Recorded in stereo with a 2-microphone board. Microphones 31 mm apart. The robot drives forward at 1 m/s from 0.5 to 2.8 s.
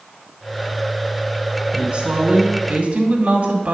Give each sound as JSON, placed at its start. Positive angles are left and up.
{"t": 1.7, "sound": "a woman speaking", "side_deg": -30, "distance_m": 2.5}